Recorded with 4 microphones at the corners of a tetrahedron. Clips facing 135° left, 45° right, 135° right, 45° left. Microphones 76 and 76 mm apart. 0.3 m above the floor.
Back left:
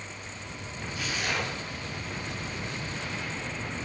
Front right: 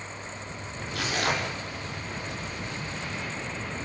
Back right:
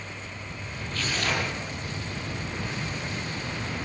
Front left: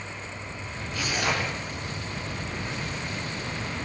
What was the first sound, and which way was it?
Tearing paper, 30° right.